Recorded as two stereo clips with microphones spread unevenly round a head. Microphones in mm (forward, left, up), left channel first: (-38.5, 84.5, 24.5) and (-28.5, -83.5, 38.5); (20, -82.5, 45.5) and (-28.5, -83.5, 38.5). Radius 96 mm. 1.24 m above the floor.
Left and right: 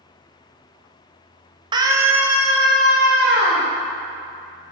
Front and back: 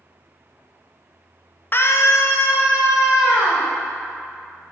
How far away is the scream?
About 0.6 m.